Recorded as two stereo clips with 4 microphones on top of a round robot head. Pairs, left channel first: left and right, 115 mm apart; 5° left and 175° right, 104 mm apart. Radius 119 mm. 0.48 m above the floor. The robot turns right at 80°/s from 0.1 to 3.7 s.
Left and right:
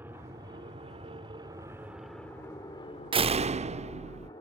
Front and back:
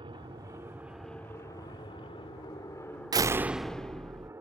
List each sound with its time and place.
0.0 s an aircraft: 160° right; by 4.4 s 130° left
3.1 s a door slam: 130° right; by 4.3 s 80° right